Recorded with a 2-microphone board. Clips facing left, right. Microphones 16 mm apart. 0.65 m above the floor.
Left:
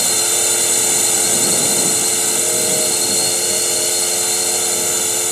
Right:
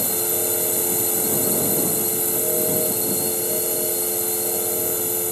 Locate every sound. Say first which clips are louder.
0.0 s a drone: left 7 dB; 75° left (ahead or behind)